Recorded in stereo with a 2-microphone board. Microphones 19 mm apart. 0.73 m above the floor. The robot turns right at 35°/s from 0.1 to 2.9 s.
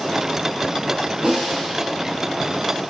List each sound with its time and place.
1.2 s a snare drum: 45° right (ahead or behind), 4.5 m; by 1.6 s 35° right (ahead or behind), 4.5 m